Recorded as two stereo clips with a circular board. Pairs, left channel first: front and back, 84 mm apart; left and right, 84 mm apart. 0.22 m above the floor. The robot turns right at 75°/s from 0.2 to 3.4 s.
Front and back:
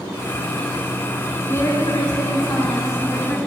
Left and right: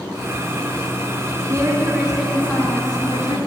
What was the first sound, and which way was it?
A woman speaking, 55° right.